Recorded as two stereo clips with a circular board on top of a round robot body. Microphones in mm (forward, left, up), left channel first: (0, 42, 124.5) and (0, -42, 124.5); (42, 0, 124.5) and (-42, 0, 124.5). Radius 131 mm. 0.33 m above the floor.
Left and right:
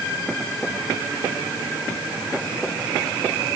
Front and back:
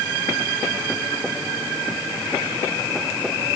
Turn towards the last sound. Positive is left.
No sound to turn to.